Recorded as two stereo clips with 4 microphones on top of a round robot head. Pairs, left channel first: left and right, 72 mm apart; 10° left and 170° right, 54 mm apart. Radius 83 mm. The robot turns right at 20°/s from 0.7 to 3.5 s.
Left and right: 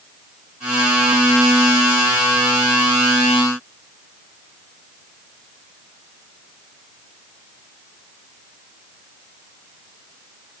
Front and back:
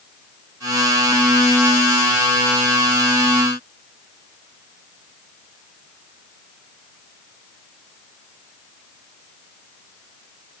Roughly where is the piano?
No piano in this recording.